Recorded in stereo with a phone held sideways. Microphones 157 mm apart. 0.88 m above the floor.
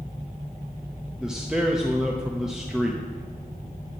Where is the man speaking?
5° right (ahead or behind), 0.9 m.